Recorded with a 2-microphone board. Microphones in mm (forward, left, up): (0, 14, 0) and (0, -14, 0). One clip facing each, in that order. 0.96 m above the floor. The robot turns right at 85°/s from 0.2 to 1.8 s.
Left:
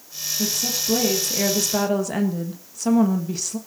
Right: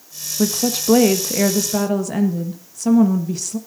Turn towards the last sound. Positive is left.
turn(degrees=5)